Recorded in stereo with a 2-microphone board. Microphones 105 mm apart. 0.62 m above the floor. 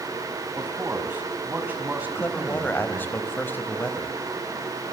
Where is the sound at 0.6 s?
15° right (ahead or behind), 5 m.